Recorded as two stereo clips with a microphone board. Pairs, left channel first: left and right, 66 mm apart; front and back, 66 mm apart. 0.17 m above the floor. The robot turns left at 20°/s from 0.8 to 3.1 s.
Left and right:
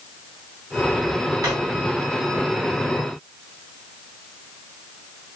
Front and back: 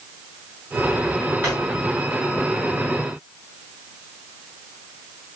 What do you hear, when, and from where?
1.4 s a drawer: 125° right, 7.5 m